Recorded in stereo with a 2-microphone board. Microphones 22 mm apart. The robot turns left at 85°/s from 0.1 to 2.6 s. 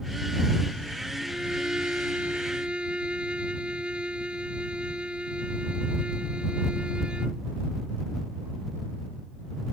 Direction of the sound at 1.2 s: 10° right.